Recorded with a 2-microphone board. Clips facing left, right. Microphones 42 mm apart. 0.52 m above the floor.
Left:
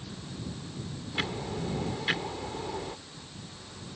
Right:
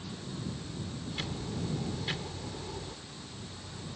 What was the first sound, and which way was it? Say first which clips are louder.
Ticking: left 6 dB; 40° left (ahead or behind).